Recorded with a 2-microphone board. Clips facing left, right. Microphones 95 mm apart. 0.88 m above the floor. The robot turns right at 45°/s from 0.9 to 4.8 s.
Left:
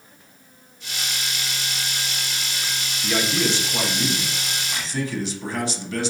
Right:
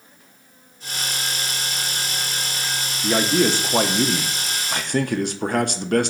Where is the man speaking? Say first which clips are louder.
Right 5 dB; 150° right, 0.5 m; by 6.1 s 70° right, 0.5 m.